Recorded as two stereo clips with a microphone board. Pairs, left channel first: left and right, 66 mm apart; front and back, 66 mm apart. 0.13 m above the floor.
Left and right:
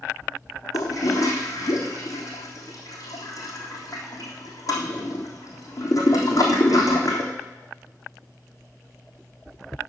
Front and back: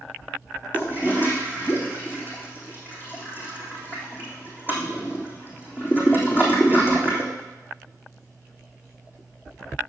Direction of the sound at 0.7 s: 55° left.